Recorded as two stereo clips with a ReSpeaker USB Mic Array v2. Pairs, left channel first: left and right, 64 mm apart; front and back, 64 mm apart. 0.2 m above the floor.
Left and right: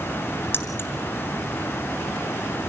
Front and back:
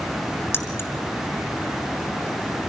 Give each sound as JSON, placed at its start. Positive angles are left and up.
{"t": 0.5, "sound": "keys jangling", "azimuth_deg": 40, "distance_m": 1.6}